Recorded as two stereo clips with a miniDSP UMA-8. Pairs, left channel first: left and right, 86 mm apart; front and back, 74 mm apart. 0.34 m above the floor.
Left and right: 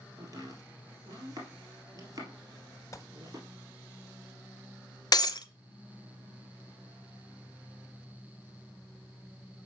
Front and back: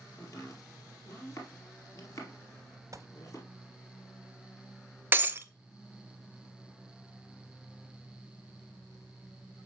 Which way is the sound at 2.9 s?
140° left.